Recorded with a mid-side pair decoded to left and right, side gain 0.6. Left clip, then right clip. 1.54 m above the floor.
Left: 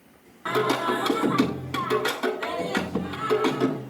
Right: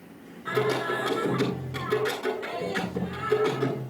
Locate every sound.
0.5 s singing: 55° left, 10 m